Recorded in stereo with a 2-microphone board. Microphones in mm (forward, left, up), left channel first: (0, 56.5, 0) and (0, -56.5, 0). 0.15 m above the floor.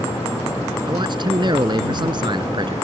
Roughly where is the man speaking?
Right.